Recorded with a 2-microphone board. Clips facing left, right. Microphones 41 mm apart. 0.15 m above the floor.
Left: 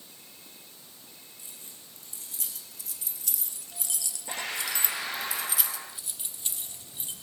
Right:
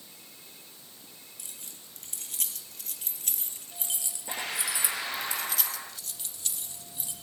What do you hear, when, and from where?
1.4 s keys jangling: 75° right (ahead or behind), 3 m; by 7.1 s 30° left (ahead or behind), 3 m